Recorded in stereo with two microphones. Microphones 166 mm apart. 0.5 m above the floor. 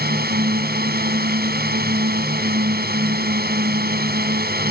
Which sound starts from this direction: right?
A drone, at 0.0 s.